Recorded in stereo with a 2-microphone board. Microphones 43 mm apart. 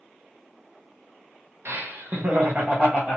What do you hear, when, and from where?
1.6 s laughter: 65° right (ahead or behind), 0.8 m; by 3.2 s 25° right (ahead or behind), 1.2 m